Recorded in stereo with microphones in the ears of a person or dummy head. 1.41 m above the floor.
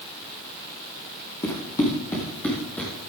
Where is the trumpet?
No trumpet in this recording.